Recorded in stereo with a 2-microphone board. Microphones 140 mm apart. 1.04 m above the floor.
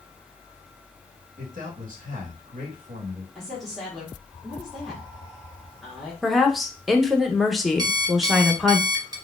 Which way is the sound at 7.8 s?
25° right (ahead or behind).